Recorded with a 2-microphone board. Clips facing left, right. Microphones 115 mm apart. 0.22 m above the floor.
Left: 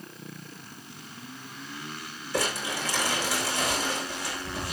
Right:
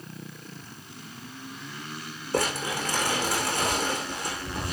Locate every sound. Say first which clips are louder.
2.3 s crumpling: right 2 dB; 50° right (ahead or behind), 7 m